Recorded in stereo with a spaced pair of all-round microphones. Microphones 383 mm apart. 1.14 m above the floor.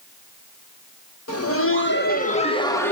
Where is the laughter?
40° left (ahead or behind), 1.5 m; by 2.9 s 5° left (ahead or behind), 1.4 m.